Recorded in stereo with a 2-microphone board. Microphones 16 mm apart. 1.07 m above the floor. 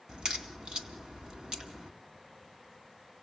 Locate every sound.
0.1 s a crack: 65° right (ahead or behind), 2.5 m